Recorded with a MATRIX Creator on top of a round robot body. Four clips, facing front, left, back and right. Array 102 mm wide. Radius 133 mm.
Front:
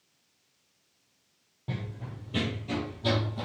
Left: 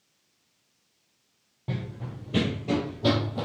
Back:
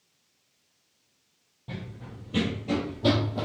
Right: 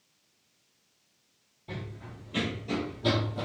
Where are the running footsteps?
70° left, 1.0 m; by 3.5 s 145° left, 1.0 m.